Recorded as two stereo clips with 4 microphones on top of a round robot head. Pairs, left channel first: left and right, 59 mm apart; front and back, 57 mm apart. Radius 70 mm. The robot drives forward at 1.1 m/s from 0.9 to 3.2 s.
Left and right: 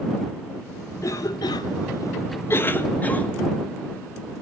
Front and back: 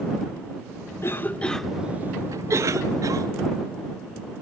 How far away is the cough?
About 1.1 m.